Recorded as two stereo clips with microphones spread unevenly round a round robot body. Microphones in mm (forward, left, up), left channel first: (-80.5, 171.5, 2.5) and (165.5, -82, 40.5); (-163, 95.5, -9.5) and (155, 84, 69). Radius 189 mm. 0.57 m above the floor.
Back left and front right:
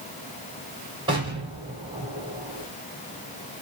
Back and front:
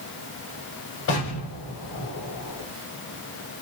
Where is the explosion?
120° right, 3 m.